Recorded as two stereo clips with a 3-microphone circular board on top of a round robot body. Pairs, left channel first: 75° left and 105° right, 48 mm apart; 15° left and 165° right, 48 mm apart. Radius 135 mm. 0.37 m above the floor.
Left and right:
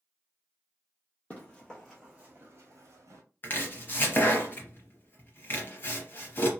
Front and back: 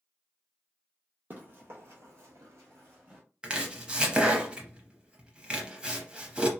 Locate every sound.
1.3 s running footsteps: 145° left, 1.0 m; by 3.2 s 100° right, 0.9 m
3.4 s chopping: 125° left, 0.6 m